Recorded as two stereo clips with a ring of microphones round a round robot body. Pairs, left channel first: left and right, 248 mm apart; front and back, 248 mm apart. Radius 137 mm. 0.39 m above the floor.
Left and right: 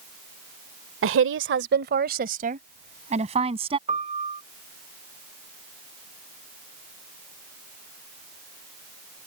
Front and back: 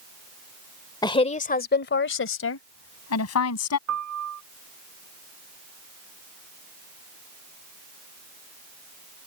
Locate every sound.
1.0 s a woman speaking: 70° right; by 3.8 s 20° right
3.9 s a piano: 155° right